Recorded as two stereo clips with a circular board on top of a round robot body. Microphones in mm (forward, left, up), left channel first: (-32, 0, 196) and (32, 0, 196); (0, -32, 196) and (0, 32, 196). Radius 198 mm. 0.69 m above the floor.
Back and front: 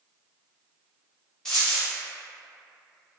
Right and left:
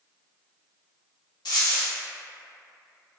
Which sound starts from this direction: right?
A dropped coin, at 1.4 s.